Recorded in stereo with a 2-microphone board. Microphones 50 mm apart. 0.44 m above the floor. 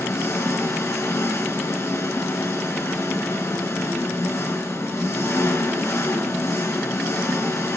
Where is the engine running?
75° left (ahead or behind), 2.5 m.